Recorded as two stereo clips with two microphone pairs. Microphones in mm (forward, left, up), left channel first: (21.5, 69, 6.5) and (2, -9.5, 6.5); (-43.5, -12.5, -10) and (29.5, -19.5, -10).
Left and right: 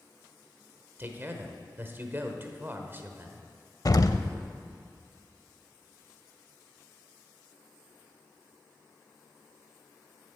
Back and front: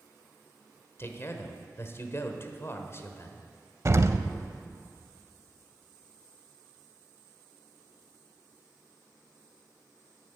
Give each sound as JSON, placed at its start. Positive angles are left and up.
{"t": 1.0, "sound": "a man speaking", "azimuth_deg": -155, "distance_m": 1.2}
{"t": 3.9, "sound": "an explosion", "azimuth_deg": 40, "distance_m": 0.5}